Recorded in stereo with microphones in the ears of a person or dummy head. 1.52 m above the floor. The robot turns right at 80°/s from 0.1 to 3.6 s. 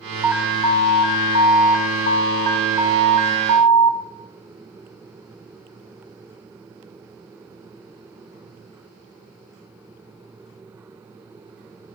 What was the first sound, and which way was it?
An alarm, 15° right.